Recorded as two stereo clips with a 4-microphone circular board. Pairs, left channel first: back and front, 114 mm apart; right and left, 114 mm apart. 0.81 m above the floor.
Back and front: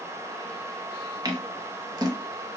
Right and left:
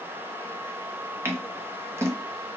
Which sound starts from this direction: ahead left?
Scissors, at 1.2 s.